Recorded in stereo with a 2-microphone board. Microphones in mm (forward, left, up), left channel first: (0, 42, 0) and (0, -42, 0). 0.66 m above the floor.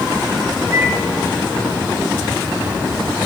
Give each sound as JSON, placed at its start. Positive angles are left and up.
{"t": 0.7, "sound": "a microwave", "side_deg": -30, "distance_m": 3.0}